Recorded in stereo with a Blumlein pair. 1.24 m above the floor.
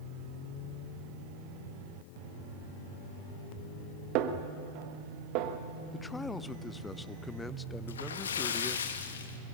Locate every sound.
4.2 s a snare drum: 40° right, 1.3 m
5.9 s a man speaking: 10° left, 0.6 m
7.9 s a splash: 65° left, 1.4 m